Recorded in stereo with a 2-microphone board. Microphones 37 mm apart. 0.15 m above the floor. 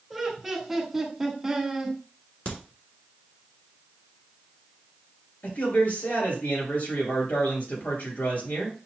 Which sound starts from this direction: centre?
Laughter, at 0.1 s.